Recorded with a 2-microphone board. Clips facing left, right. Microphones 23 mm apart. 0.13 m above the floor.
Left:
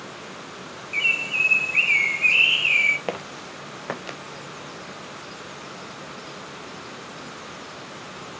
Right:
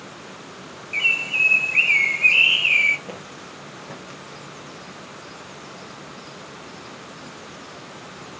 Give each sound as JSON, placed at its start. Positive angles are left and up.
{"t": 0.9, "sound": "a bird", "side_deg": -10, "distance_m": 1.2}
{"t": 3.1, "sound": "footsteps", "side_deg": 80, "distance_m": 2.0}